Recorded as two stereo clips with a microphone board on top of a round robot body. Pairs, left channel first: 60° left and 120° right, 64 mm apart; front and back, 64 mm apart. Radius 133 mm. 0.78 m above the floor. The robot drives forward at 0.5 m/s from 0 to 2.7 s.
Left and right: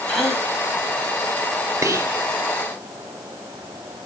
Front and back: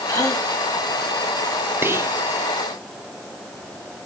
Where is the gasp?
25° right, 3.5 m; by 0.5 s 30° right, 3.5 m.